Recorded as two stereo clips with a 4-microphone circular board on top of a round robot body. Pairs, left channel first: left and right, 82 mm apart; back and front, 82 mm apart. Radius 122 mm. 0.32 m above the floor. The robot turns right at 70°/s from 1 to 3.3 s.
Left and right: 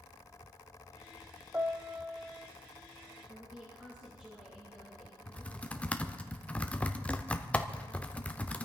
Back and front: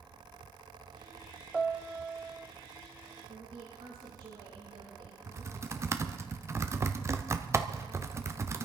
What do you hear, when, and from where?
1.5 s a piano: 75° right, 1.1 m; by 2.5 s 10° right, 1.1 m
3.3 s a woman speaking: 15° right, 5.5 m
5.3 s typing on a keyboard: 25° left, 1.1 m